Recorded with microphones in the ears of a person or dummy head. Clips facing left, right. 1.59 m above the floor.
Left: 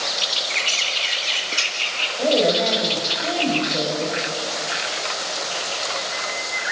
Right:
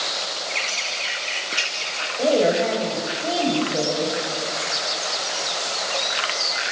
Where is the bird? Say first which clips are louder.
Left 1 dB; 5° right (ahead or behind), 3 m.